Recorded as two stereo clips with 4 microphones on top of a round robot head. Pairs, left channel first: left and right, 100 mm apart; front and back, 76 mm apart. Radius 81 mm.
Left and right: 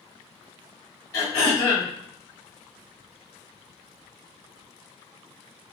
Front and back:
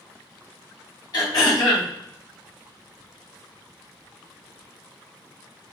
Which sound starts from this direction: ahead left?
Throat clearing, at 1.1 s.